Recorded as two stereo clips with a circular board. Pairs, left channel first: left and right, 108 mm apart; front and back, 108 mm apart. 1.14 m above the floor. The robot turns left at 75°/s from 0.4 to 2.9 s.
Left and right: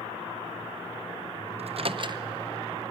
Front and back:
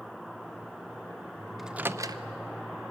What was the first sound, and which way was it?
A microwave, 90° right.